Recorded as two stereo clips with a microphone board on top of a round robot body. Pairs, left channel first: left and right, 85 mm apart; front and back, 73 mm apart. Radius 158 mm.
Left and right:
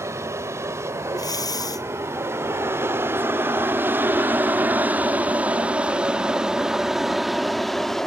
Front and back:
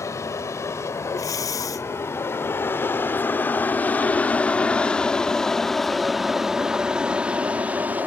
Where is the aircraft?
40° right; by 8.1 s 170° left.